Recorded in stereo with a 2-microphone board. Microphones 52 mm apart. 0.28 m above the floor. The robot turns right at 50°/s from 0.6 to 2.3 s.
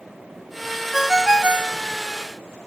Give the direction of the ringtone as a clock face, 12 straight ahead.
6 o'clock.